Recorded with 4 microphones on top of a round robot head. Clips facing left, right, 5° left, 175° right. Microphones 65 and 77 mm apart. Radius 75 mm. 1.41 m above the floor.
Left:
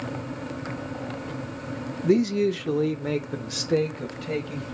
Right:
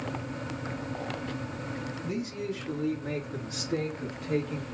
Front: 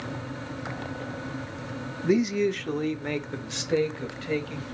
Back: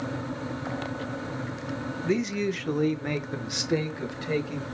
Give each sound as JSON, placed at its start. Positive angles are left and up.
{"t": 2.0, "sound": "a man speaking", "azimuth_deg": 80, "distance_m": 0.5}